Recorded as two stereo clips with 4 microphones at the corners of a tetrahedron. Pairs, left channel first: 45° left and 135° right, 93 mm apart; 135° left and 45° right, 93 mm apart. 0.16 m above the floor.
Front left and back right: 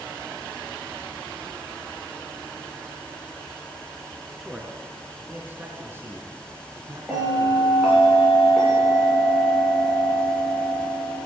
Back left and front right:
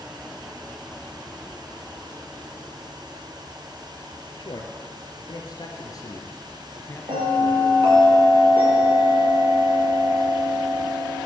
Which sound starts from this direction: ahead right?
A bell, at 7.1 s.